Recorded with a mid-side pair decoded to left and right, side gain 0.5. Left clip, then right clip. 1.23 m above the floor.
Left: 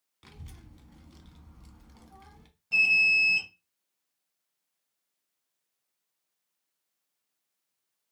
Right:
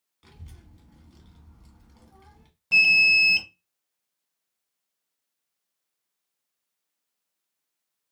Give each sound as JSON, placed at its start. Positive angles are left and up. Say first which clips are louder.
{"t": 0.2, "sound": "a child speaking", "louder": "left 1 dB", "azimuth_deg": 30, "distance_m": 1.0}
{"t": 2.7, "sound": "an alarm", "louder": "right 5 dB", "azimuth_deg": -65, "distance_m": 0.6}